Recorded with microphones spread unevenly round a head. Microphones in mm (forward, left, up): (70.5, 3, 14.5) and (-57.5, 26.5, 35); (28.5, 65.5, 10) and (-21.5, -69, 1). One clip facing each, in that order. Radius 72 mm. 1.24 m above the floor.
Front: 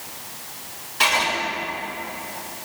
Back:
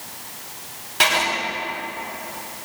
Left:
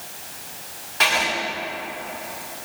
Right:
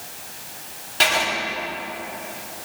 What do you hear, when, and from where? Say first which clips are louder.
1.0 s writing: back 1 dB, right 1 dB; 160° right, 3.5 m